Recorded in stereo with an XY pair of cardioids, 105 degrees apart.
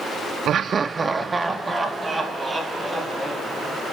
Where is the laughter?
65° right, 0.5 m; by 3.8 s 10° right, 4 m.